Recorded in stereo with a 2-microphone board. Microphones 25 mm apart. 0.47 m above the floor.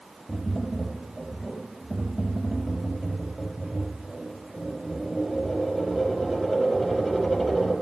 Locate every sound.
0.3 s tapping: 5° right (ahead or behind), 5.5 m